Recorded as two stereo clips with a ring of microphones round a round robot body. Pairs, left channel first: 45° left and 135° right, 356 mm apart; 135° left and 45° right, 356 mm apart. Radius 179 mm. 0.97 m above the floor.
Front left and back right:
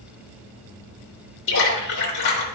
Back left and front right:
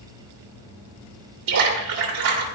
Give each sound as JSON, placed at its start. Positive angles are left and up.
{"t": 1.5, "sound": "a splash", "azimuth_deg": -10, "distance_m": 3.0}